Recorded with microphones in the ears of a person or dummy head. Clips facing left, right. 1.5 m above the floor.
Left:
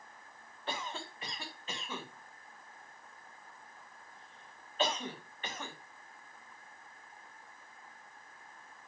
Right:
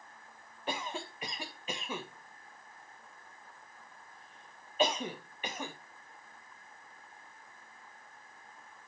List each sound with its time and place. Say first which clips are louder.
0.7 s a cough: right 3 dB; 10° right (ahead or behind), 1.3 m